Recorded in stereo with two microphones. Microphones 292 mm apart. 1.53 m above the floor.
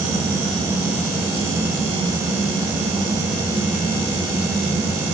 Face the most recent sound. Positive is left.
No sound to turn to.